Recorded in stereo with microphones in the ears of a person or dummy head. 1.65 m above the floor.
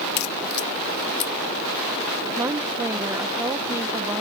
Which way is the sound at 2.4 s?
15° right (ahead or behind).